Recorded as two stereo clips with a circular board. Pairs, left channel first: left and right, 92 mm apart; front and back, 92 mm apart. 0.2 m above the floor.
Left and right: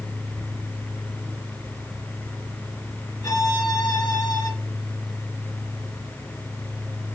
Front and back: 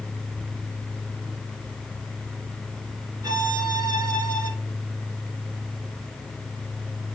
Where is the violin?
135° left, 1.5 m.